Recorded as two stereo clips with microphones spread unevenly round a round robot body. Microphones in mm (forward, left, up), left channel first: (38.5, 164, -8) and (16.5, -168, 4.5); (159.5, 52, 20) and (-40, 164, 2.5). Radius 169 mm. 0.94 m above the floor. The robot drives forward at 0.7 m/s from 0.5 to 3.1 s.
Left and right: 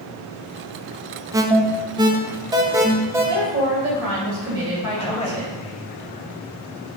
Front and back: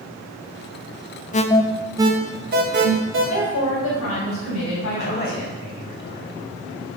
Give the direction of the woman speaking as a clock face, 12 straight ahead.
2 o'clock.